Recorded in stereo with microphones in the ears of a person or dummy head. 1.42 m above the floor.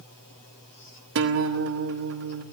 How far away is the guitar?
About 1.0 m.